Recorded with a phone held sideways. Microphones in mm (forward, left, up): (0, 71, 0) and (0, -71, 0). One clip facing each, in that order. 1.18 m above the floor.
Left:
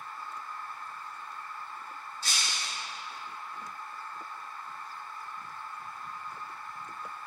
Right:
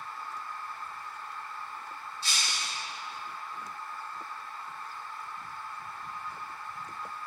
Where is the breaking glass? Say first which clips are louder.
Even; 45° left (ahead or behind), 3 m.